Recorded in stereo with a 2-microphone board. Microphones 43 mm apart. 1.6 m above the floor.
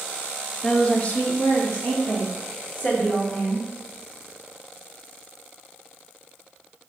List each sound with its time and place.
0.6 s a woman speaking: 15° left (ahead or behind), 1.0 m; by 3.6 s 45° left (ahead or behind), 4 m